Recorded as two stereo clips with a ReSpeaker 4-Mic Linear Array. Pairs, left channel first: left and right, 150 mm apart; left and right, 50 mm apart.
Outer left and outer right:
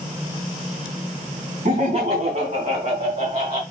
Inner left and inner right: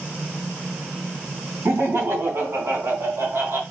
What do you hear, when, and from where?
1.6 s laughter: 65° right (ahead or behind), 3 m; by 3.6 s 70° right (ahead or behind), 3 m